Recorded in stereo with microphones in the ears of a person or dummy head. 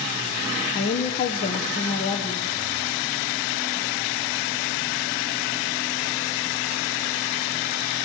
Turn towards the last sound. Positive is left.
turn(degrees=35)  # may be behind; listen again after turning